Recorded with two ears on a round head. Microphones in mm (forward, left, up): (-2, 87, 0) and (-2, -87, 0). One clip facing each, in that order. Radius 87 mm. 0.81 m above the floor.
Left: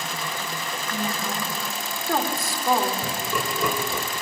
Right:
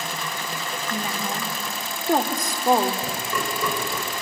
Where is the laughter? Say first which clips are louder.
Even; 5° left (ahead or behind), 4 m.